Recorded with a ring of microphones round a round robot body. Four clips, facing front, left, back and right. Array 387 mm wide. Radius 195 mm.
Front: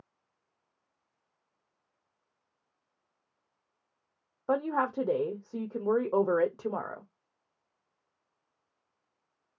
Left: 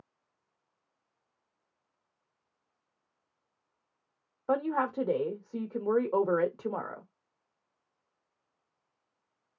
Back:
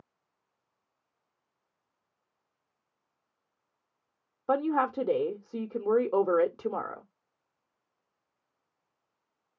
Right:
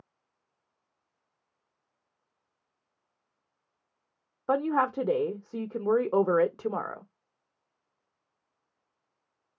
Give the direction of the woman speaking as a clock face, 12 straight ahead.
4 o'clock.